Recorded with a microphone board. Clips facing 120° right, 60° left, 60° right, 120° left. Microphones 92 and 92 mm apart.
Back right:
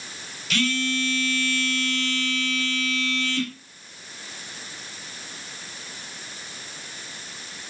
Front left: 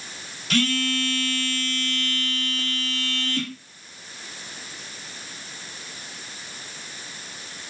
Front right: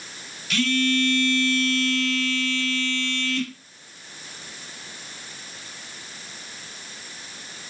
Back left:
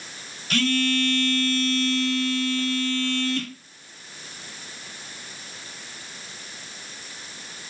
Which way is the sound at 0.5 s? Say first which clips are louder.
Front left 2 dB, even; 90° left.